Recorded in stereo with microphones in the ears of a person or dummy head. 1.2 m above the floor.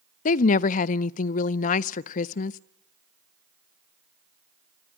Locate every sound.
0.2 s a woman speaking: 45° left (ahead or behind), 0.5 m